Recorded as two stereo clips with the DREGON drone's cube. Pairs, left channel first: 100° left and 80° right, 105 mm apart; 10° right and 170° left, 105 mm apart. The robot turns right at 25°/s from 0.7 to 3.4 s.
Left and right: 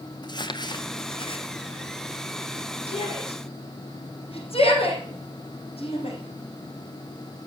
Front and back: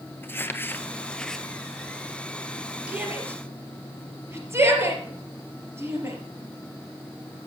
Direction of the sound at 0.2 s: 55° left.